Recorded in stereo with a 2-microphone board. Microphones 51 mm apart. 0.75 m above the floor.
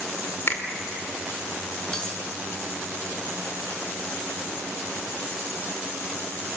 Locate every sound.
0.5 s a finger snap: 50° left (ahead or behind), 2 m
1.9 s cutlery clinking: 15° left (ahead or behind), 5.5 m